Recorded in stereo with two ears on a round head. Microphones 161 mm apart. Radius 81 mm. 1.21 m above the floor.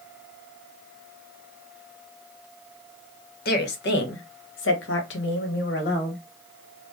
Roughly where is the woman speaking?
Left.